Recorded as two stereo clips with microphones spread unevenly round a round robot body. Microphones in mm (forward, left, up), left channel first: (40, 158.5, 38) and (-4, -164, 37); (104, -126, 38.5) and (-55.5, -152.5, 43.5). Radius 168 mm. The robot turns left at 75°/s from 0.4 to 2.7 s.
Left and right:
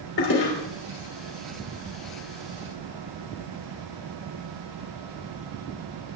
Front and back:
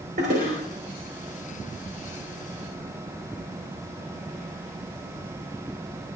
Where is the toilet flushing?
135° left, 3.5 m; by 0.5 s 125° left, 3.5 m.